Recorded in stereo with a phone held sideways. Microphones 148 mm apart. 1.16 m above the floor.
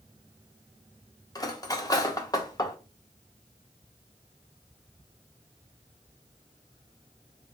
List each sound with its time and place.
1.4 s cutlery clinking: 25° left (ahead or behind), 0.5 m